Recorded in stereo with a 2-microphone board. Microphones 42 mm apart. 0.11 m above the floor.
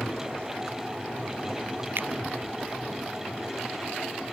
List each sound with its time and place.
2.0 s a finger snap: 60° right (ahead or behind)